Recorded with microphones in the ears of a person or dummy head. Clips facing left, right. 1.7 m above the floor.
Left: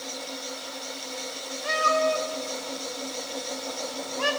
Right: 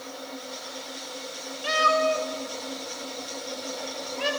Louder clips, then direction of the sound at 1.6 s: Right 1 dB; 40° right (ahead or behind).